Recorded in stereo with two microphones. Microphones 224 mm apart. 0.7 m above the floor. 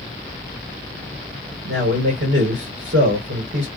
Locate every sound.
1.6 s a man speaking: 75° right (ahead or behind), 3.5 m